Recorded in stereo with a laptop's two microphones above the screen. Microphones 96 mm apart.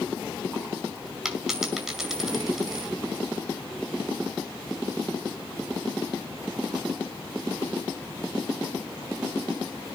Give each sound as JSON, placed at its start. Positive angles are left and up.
{"t": 1.2, "sound": "a dropped coin", "side_deg": -5, "distance_m": 4.5}